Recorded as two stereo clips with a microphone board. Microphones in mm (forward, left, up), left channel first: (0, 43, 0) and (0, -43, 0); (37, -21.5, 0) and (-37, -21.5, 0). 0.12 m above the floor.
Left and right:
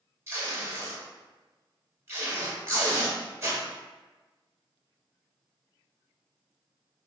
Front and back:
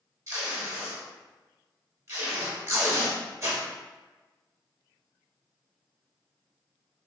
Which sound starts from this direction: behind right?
Tape being pulled, at 0.3 s.